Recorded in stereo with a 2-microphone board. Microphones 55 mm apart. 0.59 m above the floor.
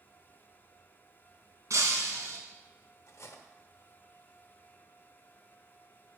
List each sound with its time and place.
1.7 s breaking glass: 70° right (ahead or behind), 2.5 m
3.1 s cutlery clinking: 65° left (ahead or behind), 1.2 m